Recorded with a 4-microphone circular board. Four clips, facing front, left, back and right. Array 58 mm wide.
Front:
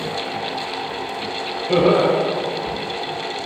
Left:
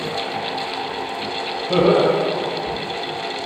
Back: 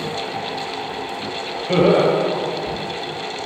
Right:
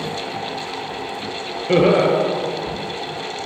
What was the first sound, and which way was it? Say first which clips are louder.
Laughter: right 1 dB, back 1 dB; 95° right.